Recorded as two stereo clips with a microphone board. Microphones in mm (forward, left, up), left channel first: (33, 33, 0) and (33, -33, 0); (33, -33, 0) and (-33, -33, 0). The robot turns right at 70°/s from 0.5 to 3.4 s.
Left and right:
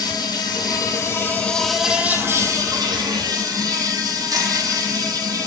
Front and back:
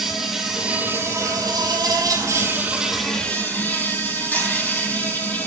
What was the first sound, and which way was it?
An insect, 90° left.